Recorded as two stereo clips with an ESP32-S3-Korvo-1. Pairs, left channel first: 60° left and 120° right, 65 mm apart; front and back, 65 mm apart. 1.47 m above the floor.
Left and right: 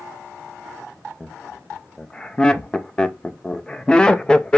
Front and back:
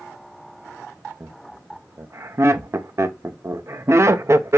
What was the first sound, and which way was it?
Laughter, 135° left.